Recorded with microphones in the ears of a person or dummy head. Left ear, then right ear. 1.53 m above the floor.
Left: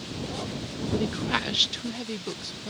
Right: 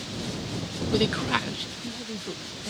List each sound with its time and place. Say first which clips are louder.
0.9 s a woman speaking: right 3 dB; 45° right (ahead or behind); by 2.7 s 85° left